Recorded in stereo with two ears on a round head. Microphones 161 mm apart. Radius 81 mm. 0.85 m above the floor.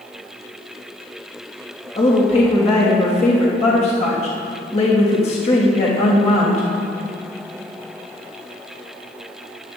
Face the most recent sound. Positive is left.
turn(degrees=40)  # may be behind; listen again after turning